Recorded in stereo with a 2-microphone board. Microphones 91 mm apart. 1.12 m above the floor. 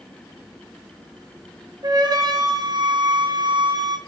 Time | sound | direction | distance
1.8 | a flute | 50° right (ahead or behind) | 1.0 m